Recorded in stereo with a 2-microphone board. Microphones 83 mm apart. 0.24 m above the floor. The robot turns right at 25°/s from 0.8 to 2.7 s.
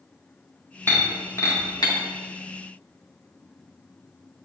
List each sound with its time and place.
0.9 s breaking glass: 30° left (ahead or behind), 4.5 m; by 1.9 s 55° left (ahead or behind), 4.5 m